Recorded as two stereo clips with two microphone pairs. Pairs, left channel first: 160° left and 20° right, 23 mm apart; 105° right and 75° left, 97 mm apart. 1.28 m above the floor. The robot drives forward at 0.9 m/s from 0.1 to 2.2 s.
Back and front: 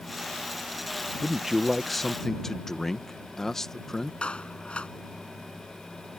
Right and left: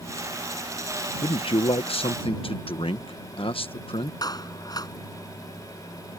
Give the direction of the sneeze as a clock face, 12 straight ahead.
No sneeze in this recording.